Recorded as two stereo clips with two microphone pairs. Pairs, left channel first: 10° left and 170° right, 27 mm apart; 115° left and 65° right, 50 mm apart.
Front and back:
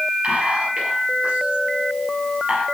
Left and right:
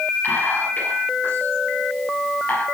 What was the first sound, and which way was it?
Whispering, 155° left.